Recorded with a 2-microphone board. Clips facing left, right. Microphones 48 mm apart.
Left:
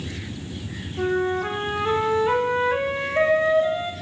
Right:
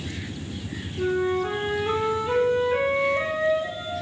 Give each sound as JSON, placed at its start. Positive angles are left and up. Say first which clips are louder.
{"t": 1.0, "sound": "a flute", "louder": "left 1 dB", "side_deg": 50, "distance_m": 0.6}